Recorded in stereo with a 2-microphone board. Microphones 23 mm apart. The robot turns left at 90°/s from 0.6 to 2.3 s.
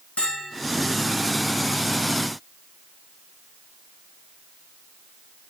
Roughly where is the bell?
Left.